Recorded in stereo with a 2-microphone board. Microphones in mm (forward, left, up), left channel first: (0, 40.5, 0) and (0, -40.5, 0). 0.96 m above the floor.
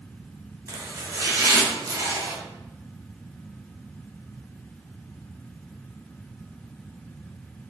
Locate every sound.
0.7 s chopping: 45° right (ahead or behind), 0.6 m